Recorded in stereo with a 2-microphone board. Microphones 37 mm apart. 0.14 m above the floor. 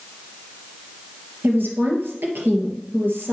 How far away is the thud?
I don't hear a thud.